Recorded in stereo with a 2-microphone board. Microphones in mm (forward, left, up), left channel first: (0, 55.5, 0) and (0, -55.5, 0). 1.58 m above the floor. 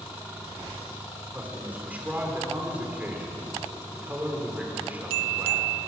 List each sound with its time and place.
1.3 s a man speaking: 15° right (ahead or behind), 5 m